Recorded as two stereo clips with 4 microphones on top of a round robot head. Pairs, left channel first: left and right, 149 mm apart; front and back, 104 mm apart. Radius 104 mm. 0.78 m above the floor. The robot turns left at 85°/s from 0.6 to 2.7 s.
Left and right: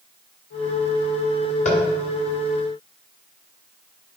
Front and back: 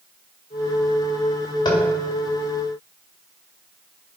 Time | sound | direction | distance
1.6 | tapping | 50° left | 2 m